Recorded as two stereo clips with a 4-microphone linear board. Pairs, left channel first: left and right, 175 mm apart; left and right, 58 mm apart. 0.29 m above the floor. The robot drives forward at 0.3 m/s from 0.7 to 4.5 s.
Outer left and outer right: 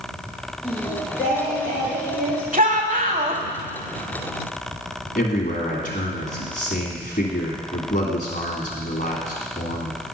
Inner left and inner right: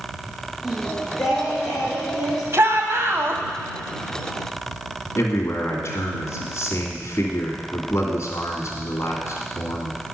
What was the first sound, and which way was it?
Singing, 10° right (ahead or behind).